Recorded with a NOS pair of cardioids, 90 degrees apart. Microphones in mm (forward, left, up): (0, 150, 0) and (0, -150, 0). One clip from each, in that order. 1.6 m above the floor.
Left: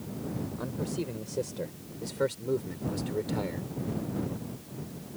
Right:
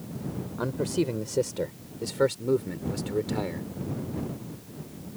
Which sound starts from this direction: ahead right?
A man speaking, at 0.6 s.